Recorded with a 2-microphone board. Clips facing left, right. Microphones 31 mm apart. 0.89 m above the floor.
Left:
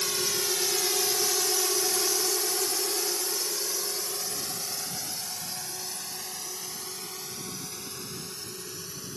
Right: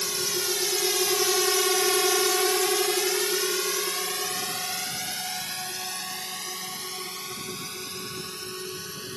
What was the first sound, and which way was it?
A drone, 5° right (ahead or behind).